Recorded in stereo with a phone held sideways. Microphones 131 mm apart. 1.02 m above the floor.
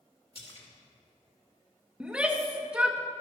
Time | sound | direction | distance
0.3 | a splash | 50° left (ahead or behind) | 2.5 m
2.0 | a shout | 10° right (ahead or behind) | 1.0 m